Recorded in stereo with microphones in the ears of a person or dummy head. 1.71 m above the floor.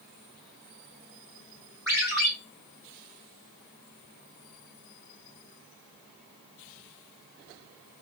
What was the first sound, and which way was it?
A ringtone, 10° right (ahead or behind).